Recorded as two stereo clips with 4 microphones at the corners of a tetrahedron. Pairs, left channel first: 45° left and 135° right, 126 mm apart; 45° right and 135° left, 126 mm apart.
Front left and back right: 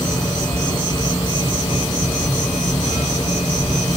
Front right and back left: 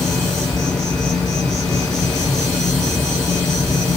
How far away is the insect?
About 1.1 m.